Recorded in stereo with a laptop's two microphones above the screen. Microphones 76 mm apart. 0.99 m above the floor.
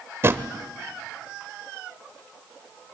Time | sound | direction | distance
0.2 | a drawer | 35° right (ahead or behind) | 1.0 m